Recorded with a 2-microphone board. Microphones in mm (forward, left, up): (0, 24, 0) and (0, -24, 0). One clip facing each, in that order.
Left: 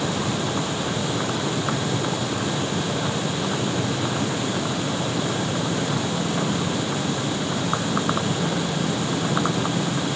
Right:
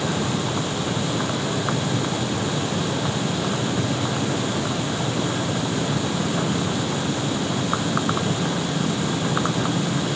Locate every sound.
Only background noise.